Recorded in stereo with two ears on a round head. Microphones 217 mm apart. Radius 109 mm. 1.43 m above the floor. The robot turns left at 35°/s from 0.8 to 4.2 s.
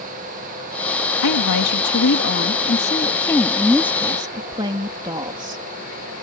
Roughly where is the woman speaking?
Left.